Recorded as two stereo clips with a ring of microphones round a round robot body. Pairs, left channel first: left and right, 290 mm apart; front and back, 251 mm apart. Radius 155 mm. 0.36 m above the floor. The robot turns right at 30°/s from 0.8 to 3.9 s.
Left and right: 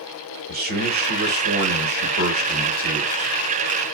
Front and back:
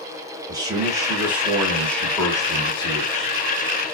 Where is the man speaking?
115° right, 1.1 m; by 3.3 s 40° right, 1.1 m.